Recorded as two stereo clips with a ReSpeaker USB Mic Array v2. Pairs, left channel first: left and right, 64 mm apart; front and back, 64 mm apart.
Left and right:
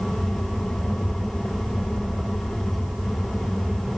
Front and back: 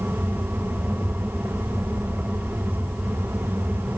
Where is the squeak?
I don't hear a squeak.